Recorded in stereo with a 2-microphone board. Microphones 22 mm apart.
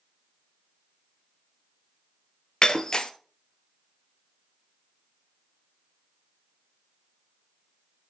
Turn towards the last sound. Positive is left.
turn(degrees=35)  # may be behind; listen again after turning